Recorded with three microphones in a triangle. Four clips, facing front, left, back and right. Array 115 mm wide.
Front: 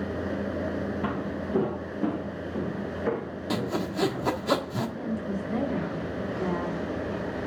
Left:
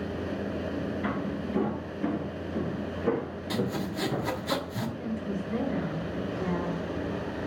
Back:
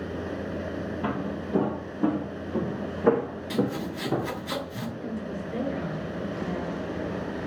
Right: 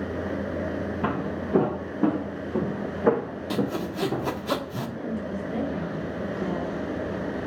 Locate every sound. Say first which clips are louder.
1.0 s footsteps: right 3 dB, even; 90° right, 3 m; by 4.3 s 160° right, 2.5 m
3.5 s sawing: right 3 dB, back 1 dB; 25° right, 1.5 m
5.0 s a woman speaking: right 2 dB, front 2 dB; 10° right, 7.5 m